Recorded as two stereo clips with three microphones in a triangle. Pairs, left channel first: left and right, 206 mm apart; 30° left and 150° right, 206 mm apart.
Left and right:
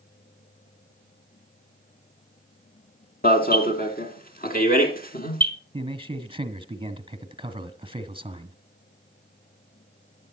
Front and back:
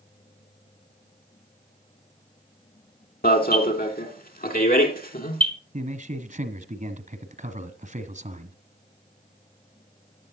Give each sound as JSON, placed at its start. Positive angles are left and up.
{"t": 3.2, "sound": "an alarm", "azimuth_deg": 60, "distance_m": 2.5}
{"t": 5.7, "sound": "a man speaking", "azimuth_deg": -135, "distance_m": 1.7}